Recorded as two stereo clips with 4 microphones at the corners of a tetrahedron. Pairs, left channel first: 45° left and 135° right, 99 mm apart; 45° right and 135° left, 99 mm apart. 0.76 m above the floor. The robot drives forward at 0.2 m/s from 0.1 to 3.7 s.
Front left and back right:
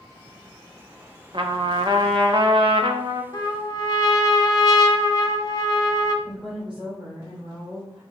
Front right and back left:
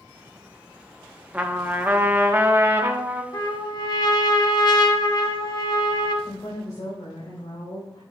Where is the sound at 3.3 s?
5° right, 1.0 m.